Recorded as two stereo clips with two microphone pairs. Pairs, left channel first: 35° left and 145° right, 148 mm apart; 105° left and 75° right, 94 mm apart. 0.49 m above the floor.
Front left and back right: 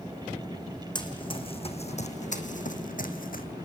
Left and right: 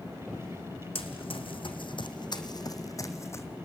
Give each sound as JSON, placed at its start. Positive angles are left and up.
{"t": 0.9, "sound": "running footsteps", "azimuth_deg": 95, "distance_m": 1.8}